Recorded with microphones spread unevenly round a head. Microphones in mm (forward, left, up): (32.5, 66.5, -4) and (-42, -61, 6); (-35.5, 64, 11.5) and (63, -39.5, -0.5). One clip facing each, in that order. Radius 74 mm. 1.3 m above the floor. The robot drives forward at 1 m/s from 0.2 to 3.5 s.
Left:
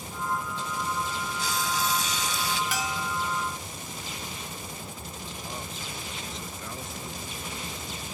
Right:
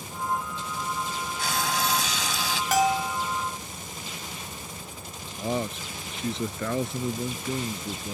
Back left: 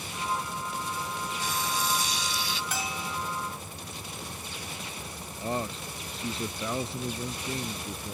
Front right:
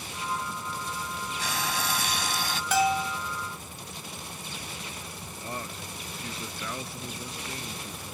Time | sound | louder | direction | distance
1.4 | frying | right 2 dB, even | 85° right | ?
2.7 | a bell | right 8 dB, front right 10 dB | 70° right | ?
5.4 | a man speaking | right 13 dB, back left 7 dB | 155° right | ?